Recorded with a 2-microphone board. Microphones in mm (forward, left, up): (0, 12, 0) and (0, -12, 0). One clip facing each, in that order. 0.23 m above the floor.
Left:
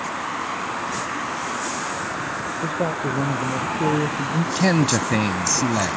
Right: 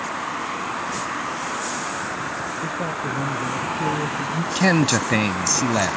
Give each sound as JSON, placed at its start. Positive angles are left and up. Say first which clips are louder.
{"t": 2.6, "sound": "a man speaking", "louder": "left 5 dB", "side_deg": 30}
{"t": 4.5, "sound": "a man speaking", "louder": "right 2 dB", "side_deg": -20}